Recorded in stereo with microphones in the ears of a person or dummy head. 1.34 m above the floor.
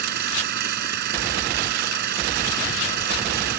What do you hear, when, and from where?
0.0 s an engine running: 60° right (ahead or behind)